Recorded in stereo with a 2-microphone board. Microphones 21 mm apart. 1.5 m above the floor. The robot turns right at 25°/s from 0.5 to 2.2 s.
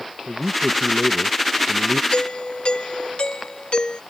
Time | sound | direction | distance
0.3 | a man speaking | 130° right | ?
2.1 | a doorbell | 60° left (ahead or behind) | ?